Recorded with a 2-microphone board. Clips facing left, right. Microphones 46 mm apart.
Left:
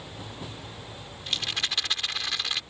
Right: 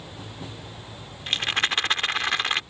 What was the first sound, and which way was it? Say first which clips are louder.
A rattle: right 6 dB; 40° right (ahead or behind).